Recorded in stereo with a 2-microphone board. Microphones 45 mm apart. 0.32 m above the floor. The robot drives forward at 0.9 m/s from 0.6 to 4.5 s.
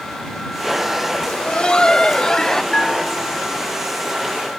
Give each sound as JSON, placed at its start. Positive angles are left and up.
{"t": 1.3, "sound": "laughter", "side_deg": 25}
{"t": 2.7, "sound": "a bell", "side_deg": 20}